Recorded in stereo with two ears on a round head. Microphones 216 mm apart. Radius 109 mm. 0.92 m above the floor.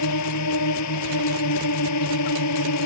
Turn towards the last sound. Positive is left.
turn(degrees=75)  # may be behind; listen again after turning